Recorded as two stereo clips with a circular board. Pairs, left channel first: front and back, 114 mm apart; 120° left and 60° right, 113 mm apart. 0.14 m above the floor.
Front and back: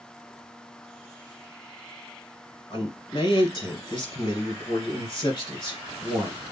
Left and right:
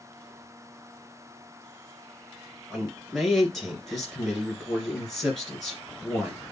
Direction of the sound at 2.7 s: 30° left.